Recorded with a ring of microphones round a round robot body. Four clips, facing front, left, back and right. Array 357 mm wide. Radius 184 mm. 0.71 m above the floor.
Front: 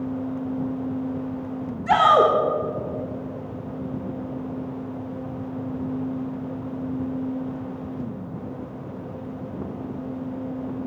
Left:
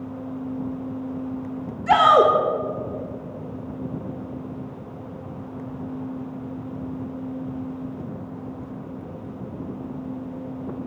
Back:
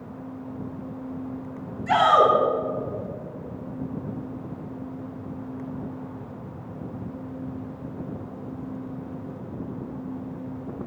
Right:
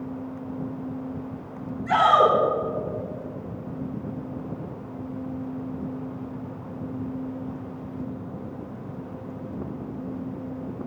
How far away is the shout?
About 3 m.